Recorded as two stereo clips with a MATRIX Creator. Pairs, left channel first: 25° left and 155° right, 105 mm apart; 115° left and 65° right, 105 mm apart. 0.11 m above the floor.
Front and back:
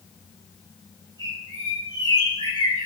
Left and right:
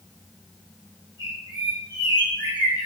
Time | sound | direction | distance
1.2 | a bird | 65° left | 4.5 m